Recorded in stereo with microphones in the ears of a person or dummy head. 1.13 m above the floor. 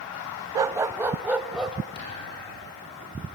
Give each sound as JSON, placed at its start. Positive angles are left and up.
{"t": 0.6, "sound": "a dog barking", "side_deg": -25, "distance_m": 0.6}
{"t": 1.9, "sound": "a thud", "side_deg": 55, "distance_m": 5.0}